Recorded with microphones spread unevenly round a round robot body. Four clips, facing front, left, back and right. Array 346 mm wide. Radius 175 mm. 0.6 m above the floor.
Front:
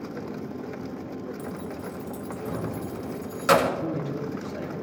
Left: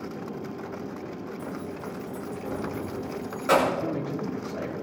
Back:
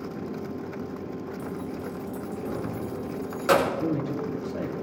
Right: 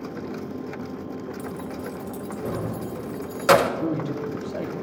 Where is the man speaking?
125° right, 2.5 m.